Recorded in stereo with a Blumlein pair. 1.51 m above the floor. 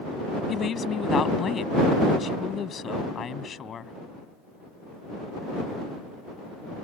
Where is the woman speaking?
25° left.